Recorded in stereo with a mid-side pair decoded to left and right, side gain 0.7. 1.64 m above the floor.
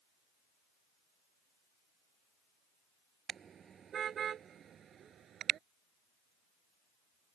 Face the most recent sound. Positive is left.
turn(degrees=-40)